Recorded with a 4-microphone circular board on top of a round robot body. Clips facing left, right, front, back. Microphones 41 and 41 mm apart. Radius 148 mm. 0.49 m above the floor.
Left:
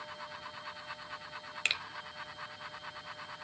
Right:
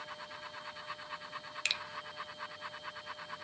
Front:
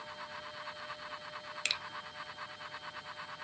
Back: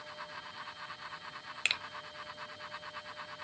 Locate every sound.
1.6 s a finger snap: 140° left, 0.9 m